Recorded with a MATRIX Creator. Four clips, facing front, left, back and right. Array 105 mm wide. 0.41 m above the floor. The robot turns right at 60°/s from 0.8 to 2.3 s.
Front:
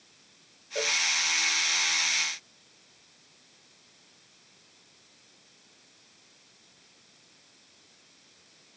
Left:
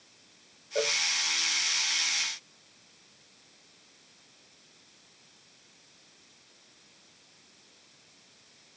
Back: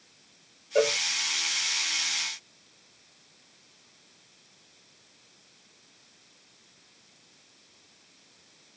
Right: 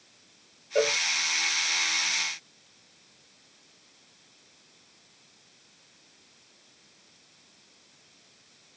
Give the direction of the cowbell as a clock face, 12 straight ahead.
5 o'clock.